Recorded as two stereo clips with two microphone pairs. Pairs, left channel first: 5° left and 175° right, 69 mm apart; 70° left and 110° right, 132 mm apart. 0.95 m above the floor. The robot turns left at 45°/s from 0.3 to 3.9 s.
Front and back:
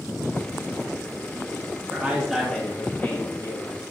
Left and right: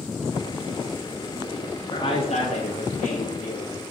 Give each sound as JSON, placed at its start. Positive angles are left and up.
{"t": 1.9, "sound": "a man speaking", "azimuth_deg": 120, "distance_m": 1.6}